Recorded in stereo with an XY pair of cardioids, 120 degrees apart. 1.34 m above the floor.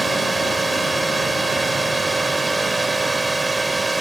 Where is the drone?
20° right.